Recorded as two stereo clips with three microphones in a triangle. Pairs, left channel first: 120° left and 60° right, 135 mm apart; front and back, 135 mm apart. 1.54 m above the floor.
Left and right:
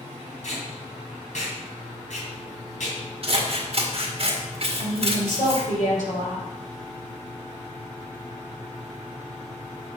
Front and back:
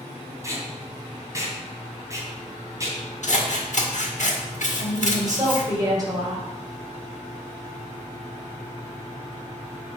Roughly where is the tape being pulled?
Behind left.